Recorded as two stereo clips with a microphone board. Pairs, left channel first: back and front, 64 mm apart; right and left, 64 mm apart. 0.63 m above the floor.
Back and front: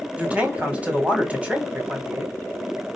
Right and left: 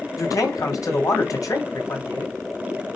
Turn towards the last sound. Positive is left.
turn(degrees=-70)